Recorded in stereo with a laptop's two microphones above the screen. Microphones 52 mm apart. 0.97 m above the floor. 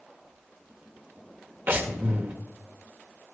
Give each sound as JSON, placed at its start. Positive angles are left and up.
{"t": 1.7, "sound": "breathing", "side_deg": -40, "distance_m": 1.4}